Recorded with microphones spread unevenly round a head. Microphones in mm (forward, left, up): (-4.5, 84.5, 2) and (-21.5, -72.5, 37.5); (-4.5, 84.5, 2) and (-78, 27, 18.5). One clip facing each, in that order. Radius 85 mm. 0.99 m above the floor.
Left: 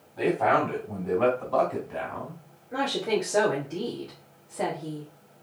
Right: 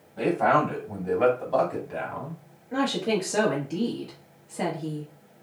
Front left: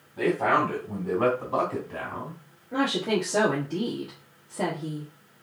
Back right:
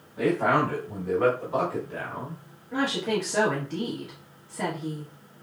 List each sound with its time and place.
0.2 s a man speaking: 30° right, 3.5 m; by 2.4 s 15° right, 2.5 m
2.7 s a woman speaking: 40° right, 1.6 m